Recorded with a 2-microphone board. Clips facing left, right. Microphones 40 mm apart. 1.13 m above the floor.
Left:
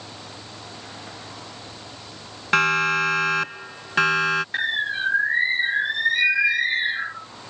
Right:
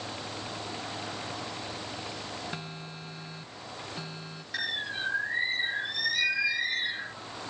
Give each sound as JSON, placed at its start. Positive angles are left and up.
{"t": 2.5, "sound": "a siren", "side_deg": 80}
{"t": 4.5, "sound": "a bird", "side_deg": 40}